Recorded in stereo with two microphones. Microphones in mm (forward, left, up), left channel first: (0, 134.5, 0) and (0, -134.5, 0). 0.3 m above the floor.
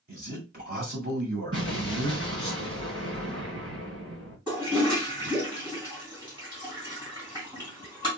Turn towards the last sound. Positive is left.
turn(degrees=-20)  # may be behind; listen again after turning